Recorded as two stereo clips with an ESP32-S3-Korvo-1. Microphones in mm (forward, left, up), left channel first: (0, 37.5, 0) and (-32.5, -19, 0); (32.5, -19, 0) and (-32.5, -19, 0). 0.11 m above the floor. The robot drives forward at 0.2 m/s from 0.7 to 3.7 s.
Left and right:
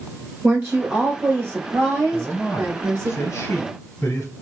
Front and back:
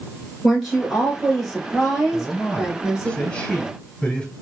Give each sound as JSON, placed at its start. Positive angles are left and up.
{"t": 0.4, "sound": "a woman speaking", "azimuth_deg": -85, "distance_m": 1.5}
{"t": 2.1, "sound": "a man speaking", "azimuth_deg": 50, "distance_m": 1.6}